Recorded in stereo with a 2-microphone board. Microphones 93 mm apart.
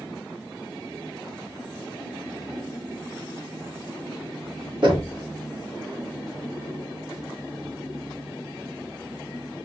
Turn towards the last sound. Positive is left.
turn(degrees=-55)  # may be behind; listen again after turning